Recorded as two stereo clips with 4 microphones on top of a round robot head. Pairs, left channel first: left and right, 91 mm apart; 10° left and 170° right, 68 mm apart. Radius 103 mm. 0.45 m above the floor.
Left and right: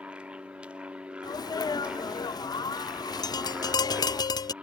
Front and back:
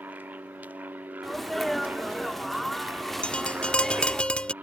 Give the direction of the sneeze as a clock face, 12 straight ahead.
9 o'clock.